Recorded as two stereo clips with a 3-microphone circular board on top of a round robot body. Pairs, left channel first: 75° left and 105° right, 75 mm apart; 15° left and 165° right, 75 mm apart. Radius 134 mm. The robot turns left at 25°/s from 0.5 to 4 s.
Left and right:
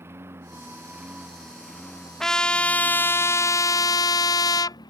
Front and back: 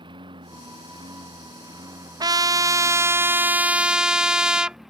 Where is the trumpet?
160° left; by 4.8 s 115° left.